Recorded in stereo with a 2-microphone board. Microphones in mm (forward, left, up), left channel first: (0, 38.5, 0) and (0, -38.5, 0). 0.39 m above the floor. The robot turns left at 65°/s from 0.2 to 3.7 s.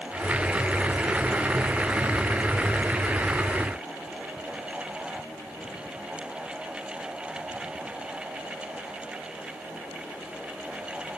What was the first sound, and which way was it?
Only background noise.